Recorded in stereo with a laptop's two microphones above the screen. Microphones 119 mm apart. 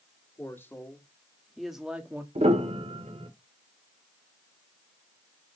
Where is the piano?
65° right (ahead or behind), 1.5 m.